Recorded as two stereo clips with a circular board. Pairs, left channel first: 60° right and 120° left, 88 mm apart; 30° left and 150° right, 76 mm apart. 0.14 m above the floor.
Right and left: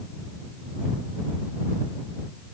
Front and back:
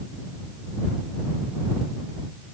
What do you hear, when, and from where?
Only background noise.